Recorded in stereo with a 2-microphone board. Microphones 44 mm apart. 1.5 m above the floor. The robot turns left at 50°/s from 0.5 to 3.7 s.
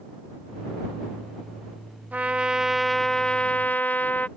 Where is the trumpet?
140° right; by 4.3 s 140° left.